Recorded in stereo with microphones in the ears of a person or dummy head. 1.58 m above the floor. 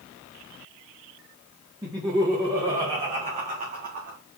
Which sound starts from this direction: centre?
Laughter, at 1.8 s.